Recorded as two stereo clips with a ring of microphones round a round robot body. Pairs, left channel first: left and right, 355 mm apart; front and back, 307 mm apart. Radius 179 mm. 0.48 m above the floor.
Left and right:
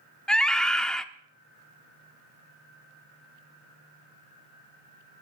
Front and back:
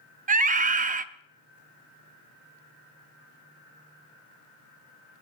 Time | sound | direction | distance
0.3 | a scream | 175° left | 0.7 m